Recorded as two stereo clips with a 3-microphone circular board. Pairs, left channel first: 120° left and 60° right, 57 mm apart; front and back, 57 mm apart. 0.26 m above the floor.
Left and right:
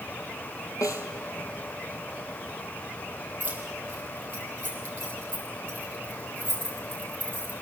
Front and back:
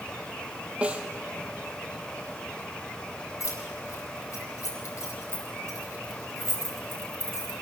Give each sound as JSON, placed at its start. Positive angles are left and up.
{"t": 0.8, "sound": "a snare drum", "azimuth_deg": 110, "distance_m": 2.0}
{"t": 3.4, "sound": "keys jangling", "azimuth_deg": -5, "distance_m": 6.0}